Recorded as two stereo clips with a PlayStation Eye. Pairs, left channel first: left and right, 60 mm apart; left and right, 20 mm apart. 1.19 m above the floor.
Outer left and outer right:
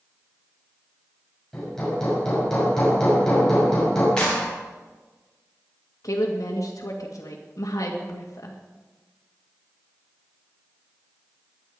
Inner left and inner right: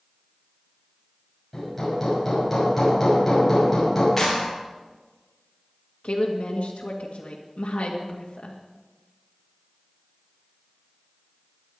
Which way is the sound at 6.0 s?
70° left (ahead or behind).